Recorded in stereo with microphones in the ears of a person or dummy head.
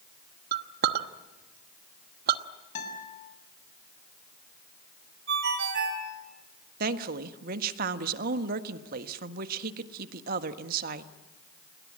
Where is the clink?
60° right (ahead or behind), 1.0 m.